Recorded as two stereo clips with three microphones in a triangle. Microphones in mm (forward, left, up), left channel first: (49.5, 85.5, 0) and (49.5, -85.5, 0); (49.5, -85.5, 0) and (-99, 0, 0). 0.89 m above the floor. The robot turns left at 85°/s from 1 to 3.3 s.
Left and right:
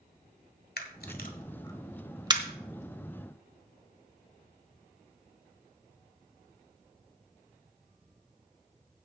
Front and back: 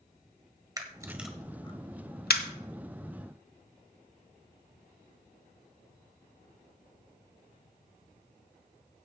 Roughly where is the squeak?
I don't hear a squeak.